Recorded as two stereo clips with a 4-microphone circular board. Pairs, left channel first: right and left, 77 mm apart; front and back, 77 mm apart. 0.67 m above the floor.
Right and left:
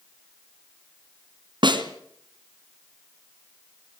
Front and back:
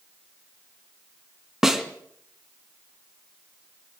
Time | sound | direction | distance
1.6 | a snare drum | 95° left | 2.5 m